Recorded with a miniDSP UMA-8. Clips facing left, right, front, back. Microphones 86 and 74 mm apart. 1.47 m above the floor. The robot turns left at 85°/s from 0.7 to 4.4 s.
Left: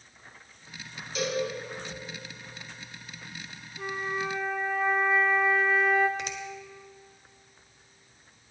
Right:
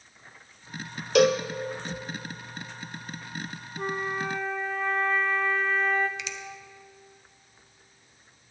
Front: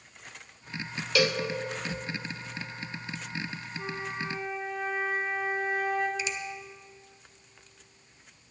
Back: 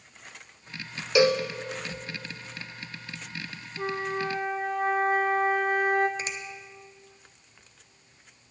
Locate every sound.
1.1 s a cowbell: 110° right, 0.5 m; by 1.4 s 135° right, 0.5 m
3.8 s a flute: 140° right, 0.8 m; by 6.1 s 170° left, 0.8 m
6.2 s a finger snap: 135° left, 0.9 m